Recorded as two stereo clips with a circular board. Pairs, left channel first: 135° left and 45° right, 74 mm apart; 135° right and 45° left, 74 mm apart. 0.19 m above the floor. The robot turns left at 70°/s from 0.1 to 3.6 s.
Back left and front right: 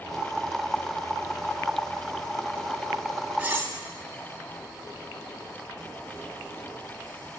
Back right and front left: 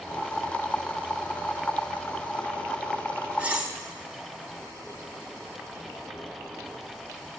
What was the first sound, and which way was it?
Cutlery clinking, 5° right.